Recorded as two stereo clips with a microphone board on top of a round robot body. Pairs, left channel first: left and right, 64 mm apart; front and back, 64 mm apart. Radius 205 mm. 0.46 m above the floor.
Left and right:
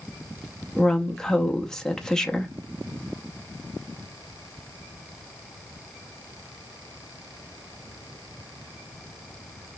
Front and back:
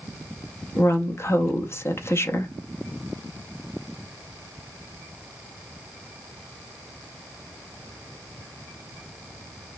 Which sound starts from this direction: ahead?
A woman speaking, at 0.8 s.